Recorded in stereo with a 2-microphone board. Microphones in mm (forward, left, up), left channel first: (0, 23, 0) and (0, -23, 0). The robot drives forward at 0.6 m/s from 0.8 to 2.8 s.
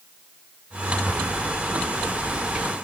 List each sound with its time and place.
1.1 s tearing paper: 15° right (ahead or behind), 4 m